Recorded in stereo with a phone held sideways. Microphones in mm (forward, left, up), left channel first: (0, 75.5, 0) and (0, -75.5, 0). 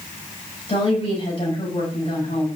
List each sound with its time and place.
0.7 s a woman speaking: 40° left (ahead or behind), 7 m